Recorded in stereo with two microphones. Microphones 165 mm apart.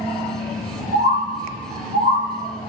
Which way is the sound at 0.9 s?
60° right (ahead or behind).